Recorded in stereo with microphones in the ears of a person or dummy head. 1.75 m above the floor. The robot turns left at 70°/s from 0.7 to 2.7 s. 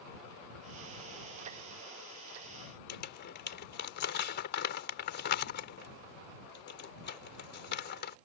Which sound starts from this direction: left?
Crumpling, at 2.9 s.